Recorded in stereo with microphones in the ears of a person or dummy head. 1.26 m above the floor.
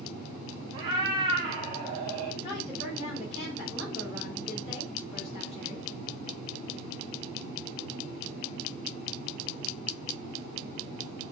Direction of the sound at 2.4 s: 35° left (ahead or behind).